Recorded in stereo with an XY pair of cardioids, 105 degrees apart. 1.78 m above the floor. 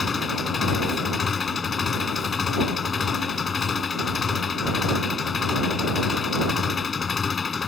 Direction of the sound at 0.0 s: 40° left.